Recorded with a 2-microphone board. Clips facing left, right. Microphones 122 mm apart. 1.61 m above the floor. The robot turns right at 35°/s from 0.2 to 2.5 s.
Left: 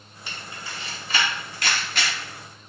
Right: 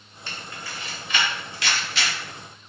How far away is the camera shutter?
About 0.9 m.